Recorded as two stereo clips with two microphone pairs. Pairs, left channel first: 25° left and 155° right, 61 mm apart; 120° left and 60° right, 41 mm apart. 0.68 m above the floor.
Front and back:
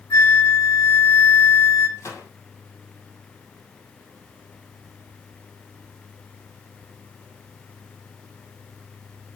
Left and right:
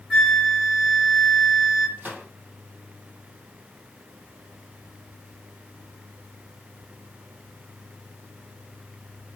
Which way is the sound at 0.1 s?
10° left.